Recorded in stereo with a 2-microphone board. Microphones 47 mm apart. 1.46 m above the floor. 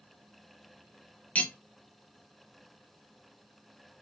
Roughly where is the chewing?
I don't hear chewing.